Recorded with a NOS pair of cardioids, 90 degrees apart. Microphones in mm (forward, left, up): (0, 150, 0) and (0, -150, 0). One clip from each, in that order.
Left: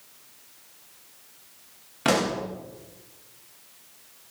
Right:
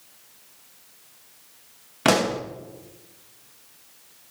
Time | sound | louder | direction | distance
2.0 | a pop | right 3 dB | 30° right | 2.5 m